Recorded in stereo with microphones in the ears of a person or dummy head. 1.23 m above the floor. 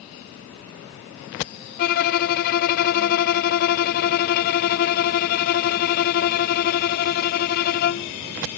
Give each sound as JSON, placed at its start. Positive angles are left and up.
{"t": 1.8, "sound": "a violin", "side_deg": 45}